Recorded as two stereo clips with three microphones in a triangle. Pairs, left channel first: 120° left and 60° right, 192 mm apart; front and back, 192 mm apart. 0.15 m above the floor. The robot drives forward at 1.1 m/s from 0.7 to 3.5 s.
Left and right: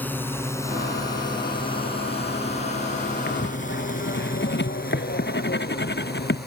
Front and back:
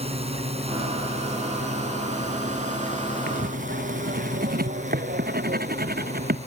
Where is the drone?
165° right; by 6.5 s 130° left.